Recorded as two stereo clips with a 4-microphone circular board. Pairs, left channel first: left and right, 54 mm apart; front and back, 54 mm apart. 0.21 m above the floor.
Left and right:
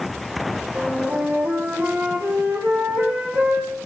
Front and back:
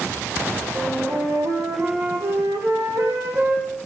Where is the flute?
155° right, 7.5 m.